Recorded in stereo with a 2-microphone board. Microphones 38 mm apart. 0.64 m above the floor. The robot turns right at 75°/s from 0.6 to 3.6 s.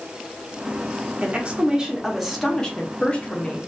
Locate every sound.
1.2 s a woman speaking: 75° right, 0.7 m; by 3.7 s 100° left, 0.7 m